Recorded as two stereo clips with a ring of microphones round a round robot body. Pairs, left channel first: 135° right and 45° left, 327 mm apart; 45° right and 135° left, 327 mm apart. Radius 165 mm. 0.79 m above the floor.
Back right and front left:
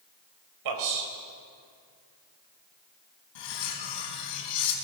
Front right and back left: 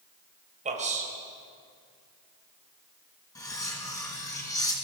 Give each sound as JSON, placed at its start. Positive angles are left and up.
{"t": 0.7, "sound": "a man speaking", "azimuth_deg": 65, "distance_m": 4.5}
{"t": 3.4, "sound": "cutlery clinking", "azimuth_deg": -125, "distance_m": 4.5}